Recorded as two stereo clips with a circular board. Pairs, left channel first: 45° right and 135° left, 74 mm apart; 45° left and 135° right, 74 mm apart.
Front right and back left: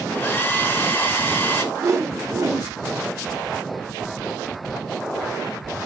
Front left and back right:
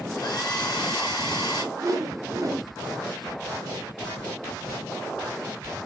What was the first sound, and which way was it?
A hair dryer, 20° left.